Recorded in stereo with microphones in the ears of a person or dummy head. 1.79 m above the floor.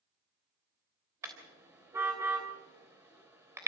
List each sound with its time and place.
1.2 s a car horn: 10° right (ahead or behind), 3.5 m